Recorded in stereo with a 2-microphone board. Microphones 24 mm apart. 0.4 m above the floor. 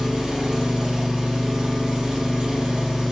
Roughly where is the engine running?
Right.